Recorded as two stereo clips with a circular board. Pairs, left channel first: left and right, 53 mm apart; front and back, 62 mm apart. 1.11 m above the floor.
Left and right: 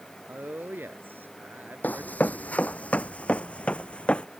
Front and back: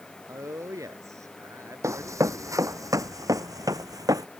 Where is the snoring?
I don't hear snoring.